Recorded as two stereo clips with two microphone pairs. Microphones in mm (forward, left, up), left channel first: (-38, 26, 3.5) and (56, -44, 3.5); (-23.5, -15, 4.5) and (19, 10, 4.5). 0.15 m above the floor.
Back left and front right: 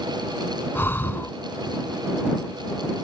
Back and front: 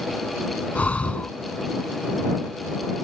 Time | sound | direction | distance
0.8 | breathing | 165° right | ?